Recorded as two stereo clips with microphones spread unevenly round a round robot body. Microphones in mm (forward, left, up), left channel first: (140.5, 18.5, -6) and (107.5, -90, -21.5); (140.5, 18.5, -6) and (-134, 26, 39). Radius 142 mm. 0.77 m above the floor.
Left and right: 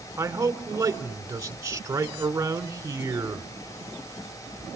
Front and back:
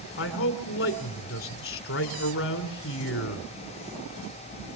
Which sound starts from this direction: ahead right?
A man speaking, at 0.2 s.